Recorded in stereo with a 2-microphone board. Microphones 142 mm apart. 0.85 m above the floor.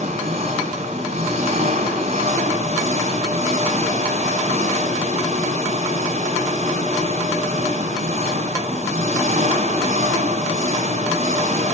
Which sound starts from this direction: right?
An engine running, at 0.0 s.